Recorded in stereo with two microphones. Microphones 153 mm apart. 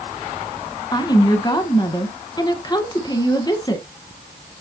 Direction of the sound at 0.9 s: 25° left (ahead or behind).